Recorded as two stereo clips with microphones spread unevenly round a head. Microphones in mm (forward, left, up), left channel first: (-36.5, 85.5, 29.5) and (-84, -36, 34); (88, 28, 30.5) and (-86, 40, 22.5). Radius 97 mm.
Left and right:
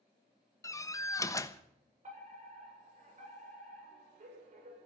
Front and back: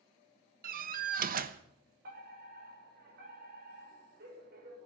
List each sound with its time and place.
0.6 s a door slam: 135° left, 1.1 m
2.0 s a fire alarm: 140° right, 7.5 m